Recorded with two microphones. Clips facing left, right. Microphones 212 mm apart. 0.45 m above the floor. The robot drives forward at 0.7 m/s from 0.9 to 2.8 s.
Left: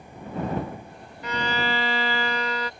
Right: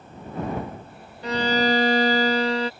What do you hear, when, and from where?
1.2 s a violin: 30° right (ahead or behind)